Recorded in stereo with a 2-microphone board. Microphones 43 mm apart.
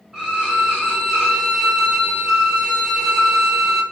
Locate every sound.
0.1 s a violin: 15° right (ahead or behind), 1.7 m